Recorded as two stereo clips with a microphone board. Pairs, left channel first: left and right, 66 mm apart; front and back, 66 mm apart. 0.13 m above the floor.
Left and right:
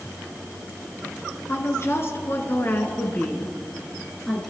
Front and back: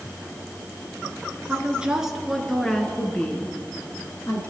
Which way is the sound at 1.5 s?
115° left.